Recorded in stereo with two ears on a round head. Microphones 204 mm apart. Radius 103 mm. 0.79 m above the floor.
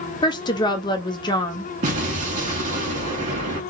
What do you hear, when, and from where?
0.2 s a woman speaking: 20° left (ahead or behind), 0.6 m
1.8 s an explosion: 35° right (ahead or behind), 1.4 m